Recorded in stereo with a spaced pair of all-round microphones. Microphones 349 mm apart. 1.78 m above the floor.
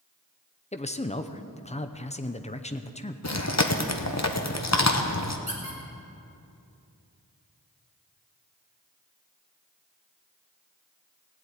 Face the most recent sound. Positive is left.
turn(degrees=20)  # may be behind; listen again after turning